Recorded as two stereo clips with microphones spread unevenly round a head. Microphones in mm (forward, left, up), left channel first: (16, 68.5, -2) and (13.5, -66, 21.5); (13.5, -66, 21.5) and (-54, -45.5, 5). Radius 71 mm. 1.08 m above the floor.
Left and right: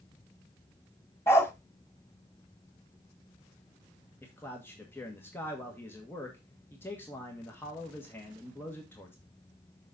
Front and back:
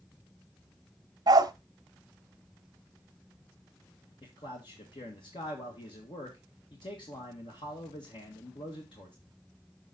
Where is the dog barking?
170° left, 0.7 m.